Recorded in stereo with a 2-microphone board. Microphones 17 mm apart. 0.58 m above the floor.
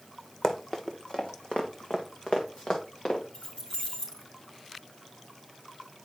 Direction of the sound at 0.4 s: 25° left (ahead or behind).